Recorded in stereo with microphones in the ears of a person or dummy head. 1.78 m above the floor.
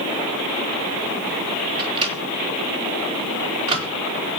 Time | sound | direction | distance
1.8 | a microwave | 30° right (ahead or behind) | 3 m